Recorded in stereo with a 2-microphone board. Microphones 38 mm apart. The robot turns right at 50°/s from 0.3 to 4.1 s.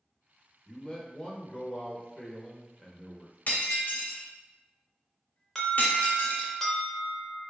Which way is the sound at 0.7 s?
20° left (ahead or behind).